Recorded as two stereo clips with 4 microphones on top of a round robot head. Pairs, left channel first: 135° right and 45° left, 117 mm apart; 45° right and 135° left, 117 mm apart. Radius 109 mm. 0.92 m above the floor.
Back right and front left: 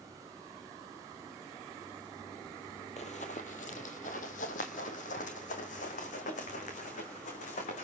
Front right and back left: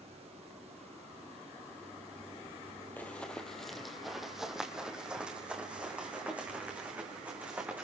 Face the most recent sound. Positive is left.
turn(degrees=-150)